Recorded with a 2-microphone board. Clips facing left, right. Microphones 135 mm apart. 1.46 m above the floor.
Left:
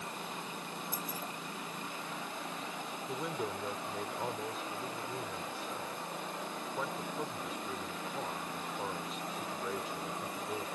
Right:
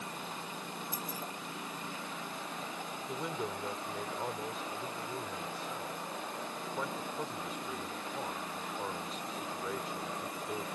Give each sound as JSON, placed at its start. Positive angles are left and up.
{"t": 0.9, "sound": "keys jangling", "side_deg": 60}
{"t": 3.1, "sound": "a man speaking", "side_deg": 0}